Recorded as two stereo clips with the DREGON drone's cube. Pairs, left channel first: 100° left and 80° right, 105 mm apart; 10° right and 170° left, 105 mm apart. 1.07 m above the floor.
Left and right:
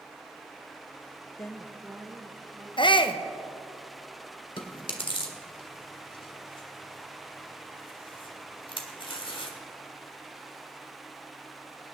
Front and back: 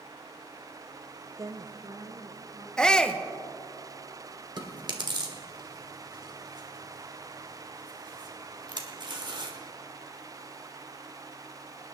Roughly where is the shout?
Left.